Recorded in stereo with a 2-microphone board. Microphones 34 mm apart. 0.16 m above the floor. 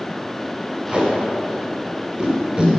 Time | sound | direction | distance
0.9 | tape being pulled | 25° right (ahead or behind) | 2 m